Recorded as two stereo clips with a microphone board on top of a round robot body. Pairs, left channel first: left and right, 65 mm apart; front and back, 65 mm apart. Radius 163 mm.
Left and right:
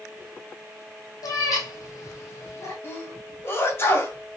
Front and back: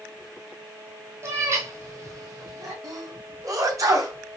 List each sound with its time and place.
1.2 s a cat meowing: 125° left, 1.9 m; by 2.7 s 140° left, 2.5 m
2.8 s a sneeze: 145° left, 3 m